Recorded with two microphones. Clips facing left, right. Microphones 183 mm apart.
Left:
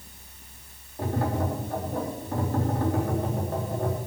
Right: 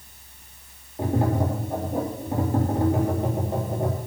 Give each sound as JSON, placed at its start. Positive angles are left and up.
{"t": 1.0, "sound": "tapping", "side_deg": -15, "distance_m": 3.5}